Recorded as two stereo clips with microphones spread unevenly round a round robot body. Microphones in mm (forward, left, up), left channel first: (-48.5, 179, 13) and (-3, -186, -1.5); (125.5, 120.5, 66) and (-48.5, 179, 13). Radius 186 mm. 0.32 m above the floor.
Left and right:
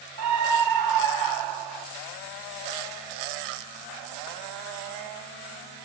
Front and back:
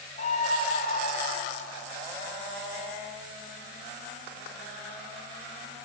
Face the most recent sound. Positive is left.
turn(degrees=-85)